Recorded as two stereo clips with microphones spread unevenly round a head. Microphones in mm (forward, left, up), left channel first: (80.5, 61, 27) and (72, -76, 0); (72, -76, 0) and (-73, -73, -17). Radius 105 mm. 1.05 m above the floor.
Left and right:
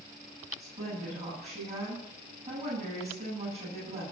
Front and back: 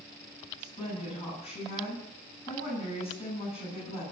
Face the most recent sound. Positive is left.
turn(degrees=-50)